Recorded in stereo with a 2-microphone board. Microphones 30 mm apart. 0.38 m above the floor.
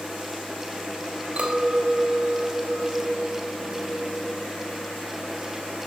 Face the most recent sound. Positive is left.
turn(degrees=-50)  # may be behind; listen again after turning